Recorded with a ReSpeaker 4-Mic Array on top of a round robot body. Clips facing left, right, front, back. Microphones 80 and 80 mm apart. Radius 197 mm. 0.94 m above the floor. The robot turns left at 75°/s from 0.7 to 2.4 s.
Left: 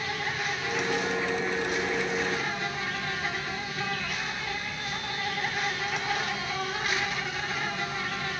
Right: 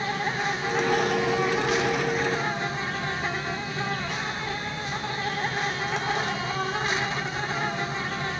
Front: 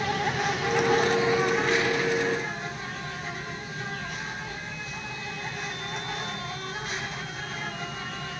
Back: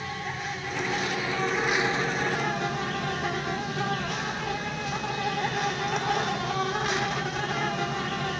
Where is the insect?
25° right, 1.0 m; by 8.4 s 155° right, 1.0 m.